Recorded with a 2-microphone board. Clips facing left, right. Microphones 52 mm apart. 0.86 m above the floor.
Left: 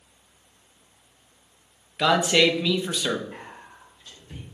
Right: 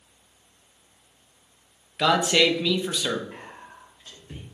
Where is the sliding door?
I don't hear a sliding door.